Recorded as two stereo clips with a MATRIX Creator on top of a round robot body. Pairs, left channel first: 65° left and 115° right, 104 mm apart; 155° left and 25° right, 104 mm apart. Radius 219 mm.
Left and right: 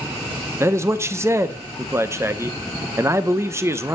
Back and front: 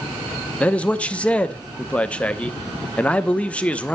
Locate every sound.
0.6 s a man speaking: 135° right, 1.0 m